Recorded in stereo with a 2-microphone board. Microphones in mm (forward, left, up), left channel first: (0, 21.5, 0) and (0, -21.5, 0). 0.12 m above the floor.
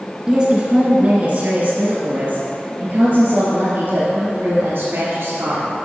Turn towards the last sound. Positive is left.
turn(degrees=-60)  # may be behind; listen again after turning